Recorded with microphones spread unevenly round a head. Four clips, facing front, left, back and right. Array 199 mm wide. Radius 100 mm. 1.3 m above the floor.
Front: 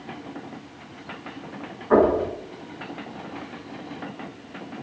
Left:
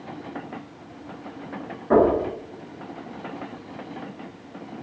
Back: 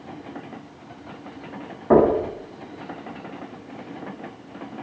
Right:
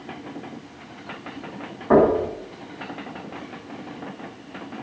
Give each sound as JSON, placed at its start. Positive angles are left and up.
{"t": 1.9, "sound": "knocking", "azimuth_deg": -165, "distance_m": 8.5}